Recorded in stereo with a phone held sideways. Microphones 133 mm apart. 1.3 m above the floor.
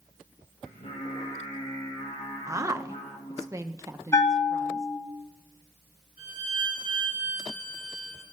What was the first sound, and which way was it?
Singing, 60° left (ahead or behind).